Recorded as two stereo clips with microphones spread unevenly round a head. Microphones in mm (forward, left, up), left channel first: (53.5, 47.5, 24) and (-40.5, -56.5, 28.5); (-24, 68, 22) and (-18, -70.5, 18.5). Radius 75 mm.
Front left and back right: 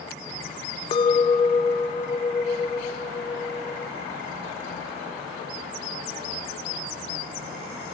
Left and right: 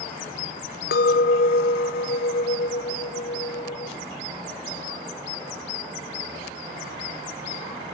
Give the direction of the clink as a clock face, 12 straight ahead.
8 o'clock.